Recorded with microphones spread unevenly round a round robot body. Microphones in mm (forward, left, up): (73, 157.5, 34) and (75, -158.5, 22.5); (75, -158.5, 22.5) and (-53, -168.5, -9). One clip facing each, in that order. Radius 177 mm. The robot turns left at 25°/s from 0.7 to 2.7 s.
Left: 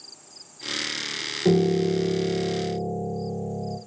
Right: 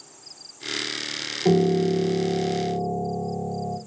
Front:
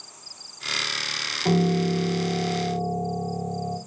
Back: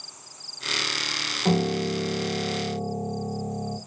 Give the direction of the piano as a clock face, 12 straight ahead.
7 o'clock.